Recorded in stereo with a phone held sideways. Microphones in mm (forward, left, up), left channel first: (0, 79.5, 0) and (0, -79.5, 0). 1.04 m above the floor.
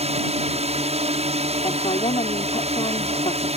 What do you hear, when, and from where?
0.0 s a drone: 40° right (ahead or behind)
1.6 s a woman speaking: 40° left (ahead or behind)